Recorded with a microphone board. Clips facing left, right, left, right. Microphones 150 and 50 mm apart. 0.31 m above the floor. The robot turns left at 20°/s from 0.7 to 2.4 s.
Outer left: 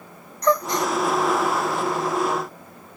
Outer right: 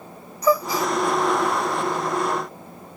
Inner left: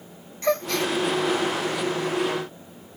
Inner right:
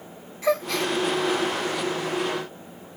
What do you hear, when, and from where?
0.4 s a gasp: 5° right (ahead or behind); by 0.9 s centre (ahead or behind)